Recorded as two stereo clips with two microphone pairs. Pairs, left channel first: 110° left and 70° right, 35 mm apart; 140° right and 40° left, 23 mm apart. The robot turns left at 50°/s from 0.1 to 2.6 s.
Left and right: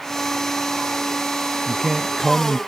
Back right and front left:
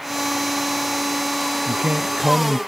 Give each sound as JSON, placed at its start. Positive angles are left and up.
{"t": 1.7, "sound": "a man speaking", "azimuth_deg": 30}